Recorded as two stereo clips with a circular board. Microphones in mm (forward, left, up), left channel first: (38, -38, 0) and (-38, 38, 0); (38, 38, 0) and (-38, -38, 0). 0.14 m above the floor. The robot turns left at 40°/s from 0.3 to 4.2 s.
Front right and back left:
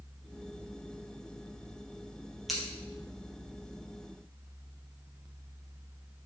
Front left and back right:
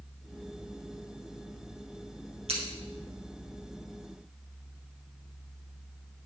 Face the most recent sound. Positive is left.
turn(degrees=155)